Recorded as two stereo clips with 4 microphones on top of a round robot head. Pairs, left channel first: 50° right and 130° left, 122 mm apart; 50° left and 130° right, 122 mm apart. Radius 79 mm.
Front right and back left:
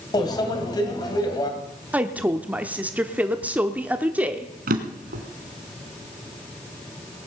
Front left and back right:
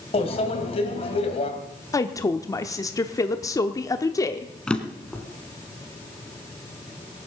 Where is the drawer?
130° left, 1.6 m.